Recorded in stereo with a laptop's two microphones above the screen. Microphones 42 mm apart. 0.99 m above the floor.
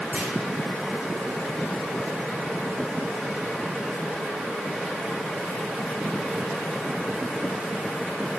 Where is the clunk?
40° right (ahead or behind), 2.5 m.